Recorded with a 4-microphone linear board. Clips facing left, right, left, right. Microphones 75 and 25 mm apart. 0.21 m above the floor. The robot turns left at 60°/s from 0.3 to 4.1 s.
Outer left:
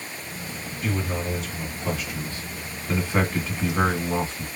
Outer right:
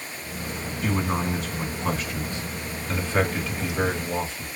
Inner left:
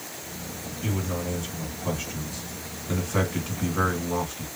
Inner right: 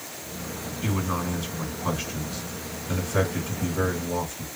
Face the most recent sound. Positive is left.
turn(degrees=100)